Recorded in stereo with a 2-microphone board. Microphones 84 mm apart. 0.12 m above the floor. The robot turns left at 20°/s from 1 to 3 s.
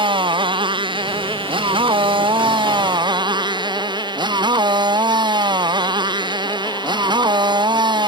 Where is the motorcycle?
75° right; by 8.1 s 115° right.